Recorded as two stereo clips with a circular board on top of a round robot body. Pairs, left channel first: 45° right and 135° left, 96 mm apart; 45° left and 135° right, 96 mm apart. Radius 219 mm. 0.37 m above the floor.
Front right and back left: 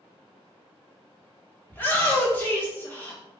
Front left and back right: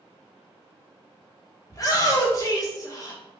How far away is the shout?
About 1.8 m.